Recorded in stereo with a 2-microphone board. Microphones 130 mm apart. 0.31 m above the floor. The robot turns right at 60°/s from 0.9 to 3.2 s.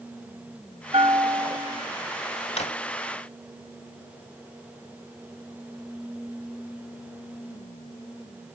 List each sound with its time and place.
0.9 s a bell: 100° right, 1.0 m; by 1.8 s 45° right, 1.0 m
2.6 s a drawer: 50° left (ahead or behind), 1.0 m; by 2.8 s 55° left (ahead or behind), 1.0 m